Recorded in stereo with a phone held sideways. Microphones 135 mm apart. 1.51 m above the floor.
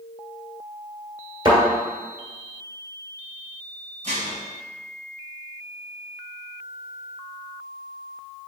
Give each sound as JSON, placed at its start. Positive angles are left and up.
{"t": 1.4, "sound": "a thud", "side_deg": -30, "distance_m": 1.8}
{"t": 4.0, "sound": "dishes clattering", "side_deg": -55, "distance_m": 0.9}